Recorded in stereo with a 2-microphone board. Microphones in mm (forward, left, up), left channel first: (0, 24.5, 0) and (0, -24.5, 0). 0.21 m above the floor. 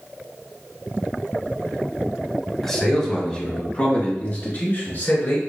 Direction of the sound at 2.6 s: 5° left (ahead or behind).